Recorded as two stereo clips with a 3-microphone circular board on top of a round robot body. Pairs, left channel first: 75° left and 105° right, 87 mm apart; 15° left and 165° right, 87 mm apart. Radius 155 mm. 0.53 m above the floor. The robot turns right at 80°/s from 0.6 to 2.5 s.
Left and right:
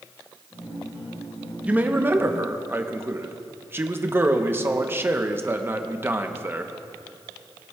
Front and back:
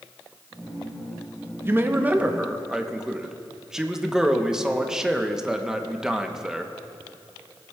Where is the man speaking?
160° right, 0.9 m; by 6.7 s 90° right, 0.9 m.